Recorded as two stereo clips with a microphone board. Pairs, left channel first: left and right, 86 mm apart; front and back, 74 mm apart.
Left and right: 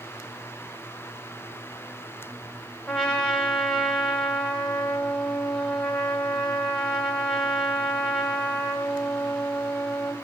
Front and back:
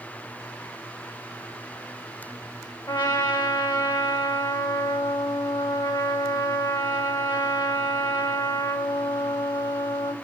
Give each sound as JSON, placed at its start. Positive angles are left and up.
{"t": 2.9, "sound": "a trumpet", "azimuth_deg": 10, "distance_m": 1.5}